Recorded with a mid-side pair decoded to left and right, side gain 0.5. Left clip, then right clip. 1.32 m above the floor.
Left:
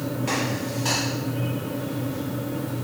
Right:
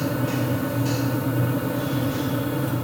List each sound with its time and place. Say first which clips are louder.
0.0 s a fan: right 1 dB; 50° right, 0.8 m